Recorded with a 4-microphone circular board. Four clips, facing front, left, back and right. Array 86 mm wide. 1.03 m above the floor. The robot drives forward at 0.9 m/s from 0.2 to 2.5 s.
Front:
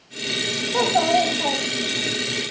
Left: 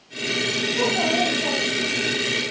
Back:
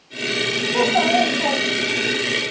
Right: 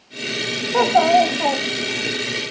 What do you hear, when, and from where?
0.7 s a child speaking: 85° right, 4 m; by 2.1 s 105° right, 4 m